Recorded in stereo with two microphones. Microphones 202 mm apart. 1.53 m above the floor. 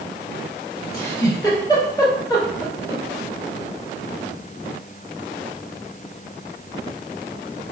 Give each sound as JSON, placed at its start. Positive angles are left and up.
{"t": 0.9, "sound": "a giggle", "side_deg": 20, "distance_m": 1.3}